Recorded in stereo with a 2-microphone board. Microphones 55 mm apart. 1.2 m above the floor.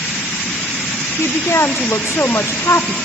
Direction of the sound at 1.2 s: 65° left (ahead or behind).